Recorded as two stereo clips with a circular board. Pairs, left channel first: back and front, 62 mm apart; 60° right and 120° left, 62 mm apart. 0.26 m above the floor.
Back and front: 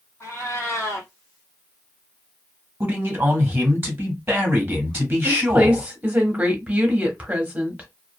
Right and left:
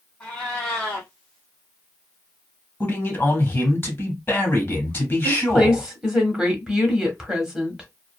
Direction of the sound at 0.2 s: 140° right.